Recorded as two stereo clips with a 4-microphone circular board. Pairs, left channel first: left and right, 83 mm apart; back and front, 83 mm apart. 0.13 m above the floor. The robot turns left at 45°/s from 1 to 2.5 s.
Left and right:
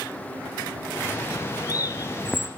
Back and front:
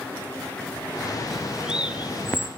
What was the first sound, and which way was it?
A bird, 95° left.